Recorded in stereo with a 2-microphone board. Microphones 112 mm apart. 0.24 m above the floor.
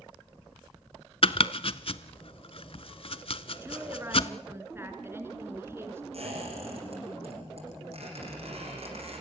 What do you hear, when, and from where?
1.2 s chopping: 55° left (ahead or behind), 0.8 m
3.6 s a woman speaking: 20° right (ahead or behind), 3.5 m
6.1 s a squeak: 65° right (ahead or behind), 10 m